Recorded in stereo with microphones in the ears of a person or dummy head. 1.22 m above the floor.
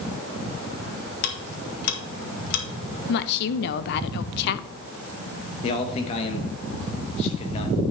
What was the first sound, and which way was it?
Ticking, 70° left (ahead or behind).